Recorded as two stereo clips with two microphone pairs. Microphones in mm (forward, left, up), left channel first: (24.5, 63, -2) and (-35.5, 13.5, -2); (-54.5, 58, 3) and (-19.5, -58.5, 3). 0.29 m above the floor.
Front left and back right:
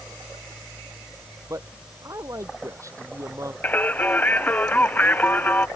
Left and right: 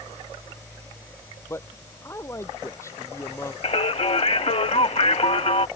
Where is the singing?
105° left.